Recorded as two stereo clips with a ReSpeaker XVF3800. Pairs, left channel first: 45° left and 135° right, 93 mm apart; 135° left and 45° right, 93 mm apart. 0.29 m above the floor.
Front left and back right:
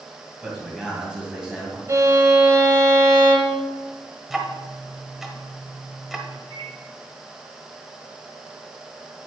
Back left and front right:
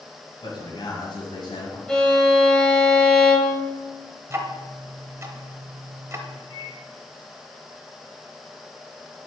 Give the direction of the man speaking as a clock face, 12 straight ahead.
7 o'clock.